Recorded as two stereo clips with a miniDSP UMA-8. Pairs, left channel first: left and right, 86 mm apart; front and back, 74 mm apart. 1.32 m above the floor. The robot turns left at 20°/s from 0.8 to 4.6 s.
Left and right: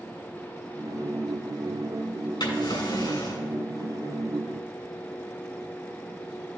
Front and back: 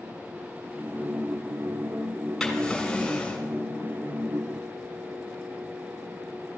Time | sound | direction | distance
2.4 | a drawer | 85° left | 3 m